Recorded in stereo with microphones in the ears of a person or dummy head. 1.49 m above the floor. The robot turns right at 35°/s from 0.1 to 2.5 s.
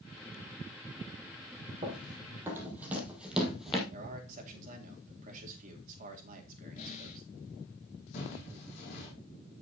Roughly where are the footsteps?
Left.